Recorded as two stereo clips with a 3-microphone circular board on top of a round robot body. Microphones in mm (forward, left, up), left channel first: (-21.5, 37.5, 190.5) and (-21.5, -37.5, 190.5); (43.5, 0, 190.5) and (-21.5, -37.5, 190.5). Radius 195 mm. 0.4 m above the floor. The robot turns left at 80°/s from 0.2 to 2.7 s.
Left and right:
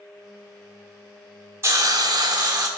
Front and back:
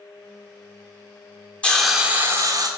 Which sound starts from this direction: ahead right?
A hiss, at 1.6 s.